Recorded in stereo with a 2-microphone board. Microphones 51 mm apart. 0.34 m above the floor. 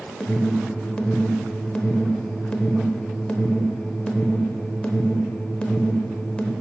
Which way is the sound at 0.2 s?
20° left (ahead or behind).